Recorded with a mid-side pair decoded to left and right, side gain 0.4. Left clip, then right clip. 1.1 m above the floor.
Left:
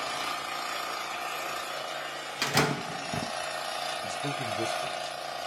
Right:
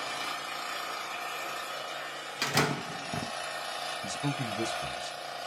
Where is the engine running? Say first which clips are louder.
Left 2 dB; 30° left, 1.3 m.